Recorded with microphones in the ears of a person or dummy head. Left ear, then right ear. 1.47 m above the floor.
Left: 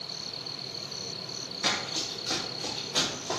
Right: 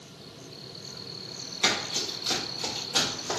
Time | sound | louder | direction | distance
1.6 | running footsteps | right 3 dB | 30° right (ahead or behind) | 1.7 m